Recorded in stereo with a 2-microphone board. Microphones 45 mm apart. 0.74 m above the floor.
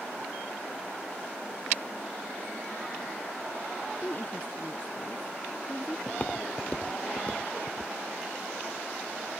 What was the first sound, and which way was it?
A woman speaking, 40° left (ahead or behind).